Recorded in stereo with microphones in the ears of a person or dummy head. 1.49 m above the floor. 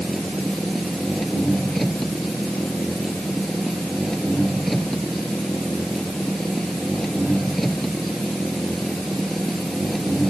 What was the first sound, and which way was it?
An engine running, centre (ahead or behind).